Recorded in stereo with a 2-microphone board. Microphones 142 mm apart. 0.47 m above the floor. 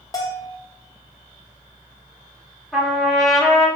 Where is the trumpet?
Centre (ahead or behind), 1.4 m.